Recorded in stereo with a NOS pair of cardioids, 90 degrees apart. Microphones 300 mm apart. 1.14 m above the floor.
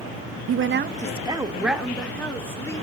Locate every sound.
0.5 s a woman speaking: 55° right, 1.1 m; by 2.8 s 10° left, 3 m